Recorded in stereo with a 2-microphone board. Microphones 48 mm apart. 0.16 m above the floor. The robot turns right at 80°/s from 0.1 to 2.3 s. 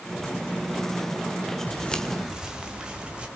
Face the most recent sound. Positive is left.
turn(degrees=-20)  # may be behind; listen again after turning